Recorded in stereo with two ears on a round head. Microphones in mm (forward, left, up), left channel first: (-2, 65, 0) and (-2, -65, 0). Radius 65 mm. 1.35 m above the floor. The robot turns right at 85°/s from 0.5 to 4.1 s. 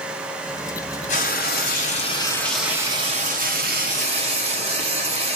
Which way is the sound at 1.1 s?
55° left.